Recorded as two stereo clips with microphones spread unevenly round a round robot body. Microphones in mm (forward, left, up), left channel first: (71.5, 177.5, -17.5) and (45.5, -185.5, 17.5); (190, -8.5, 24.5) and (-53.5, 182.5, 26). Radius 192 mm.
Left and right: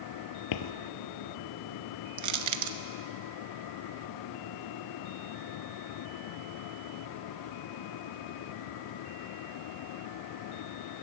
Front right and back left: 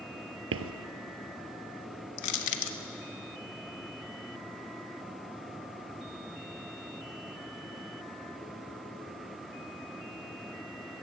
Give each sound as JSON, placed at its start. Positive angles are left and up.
{"t": 0.5, "sound": "footsteps", "azimuth_deg": 110, "distance_m": 1.2}
{"t": 2.2, "sound": "crushing", "azimuth_deg": -55, "distance_m": 1.2}